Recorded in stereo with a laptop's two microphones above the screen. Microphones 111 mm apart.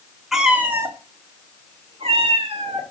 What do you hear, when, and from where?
0.3 s a cat meowing: 5° right (ahead or behind), 0.9 m; by 2.8 s 70° right (ahead or behind), 1.8 m